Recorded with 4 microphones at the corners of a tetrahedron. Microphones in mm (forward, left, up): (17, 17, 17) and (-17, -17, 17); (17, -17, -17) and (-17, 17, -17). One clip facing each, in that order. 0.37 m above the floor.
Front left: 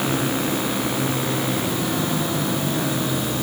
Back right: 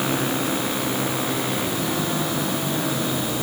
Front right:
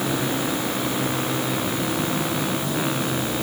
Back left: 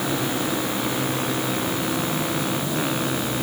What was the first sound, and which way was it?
Only background noise.